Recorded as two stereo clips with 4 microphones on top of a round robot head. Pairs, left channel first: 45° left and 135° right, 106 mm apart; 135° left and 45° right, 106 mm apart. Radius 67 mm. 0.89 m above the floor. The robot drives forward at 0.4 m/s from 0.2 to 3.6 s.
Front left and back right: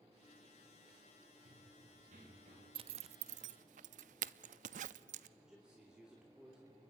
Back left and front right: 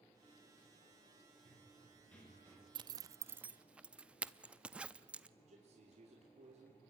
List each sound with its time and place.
1.4 s running footsteps: 140° right, 7 m; by 2.6 s 150° right, 7.5 m
2.8 s a zipper: 90° right, 0.5 m; by 5.3 s 125° right, 0.6 m
5.4 s a man speaking: 50° right, 3 m